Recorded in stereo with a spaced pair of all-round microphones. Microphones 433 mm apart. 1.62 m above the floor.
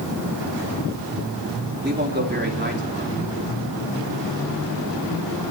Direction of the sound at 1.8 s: 25° right (ahead or behind).